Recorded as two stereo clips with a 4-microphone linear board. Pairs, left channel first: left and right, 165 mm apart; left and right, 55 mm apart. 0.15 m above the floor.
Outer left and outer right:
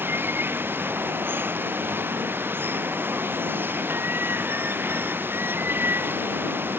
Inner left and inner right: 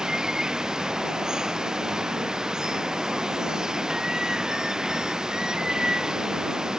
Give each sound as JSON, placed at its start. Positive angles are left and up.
{"t": 0.0, "sound": "running water", "side_deg": -10}